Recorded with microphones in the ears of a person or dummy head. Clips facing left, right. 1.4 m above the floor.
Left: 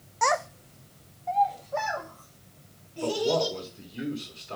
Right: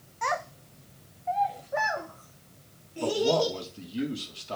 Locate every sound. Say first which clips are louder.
0.2 s a child speaking: left 5 dB; 55° left (ahead or behind), 0.9 m; by 4.0 s 35° right (ahead or behind), 6 m
3.0 s a man speaking: right 1 dB; 55° right (ahead or behind), 3.5 m